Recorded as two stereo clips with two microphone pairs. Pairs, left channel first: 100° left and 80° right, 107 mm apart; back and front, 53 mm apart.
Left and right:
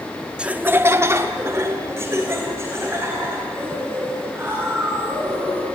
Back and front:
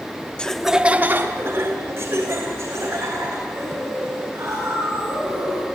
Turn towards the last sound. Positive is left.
turn(degrees=-15)